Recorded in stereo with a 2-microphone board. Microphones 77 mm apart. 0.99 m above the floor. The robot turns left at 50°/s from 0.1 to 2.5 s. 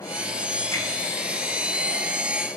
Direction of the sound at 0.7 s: 50° left (ahead or behind).